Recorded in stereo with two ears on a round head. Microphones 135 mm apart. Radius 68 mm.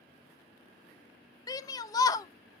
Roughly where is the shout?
Left.